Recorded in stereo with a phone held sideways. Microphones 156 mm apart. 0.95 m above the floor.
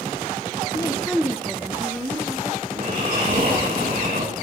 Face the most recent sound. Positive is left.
turn(degrees=-85)